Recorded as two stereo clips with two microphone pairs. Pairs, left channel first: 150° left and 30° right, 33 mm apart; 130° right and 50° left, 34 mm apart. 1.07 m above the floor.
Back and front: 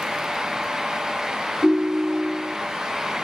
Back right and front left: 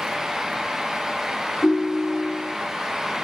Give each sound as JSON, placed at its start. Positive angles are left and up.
{"t": 1.6, "sound": "a ringtone", "azimuth_deg": -90, "distance_m": 1.3}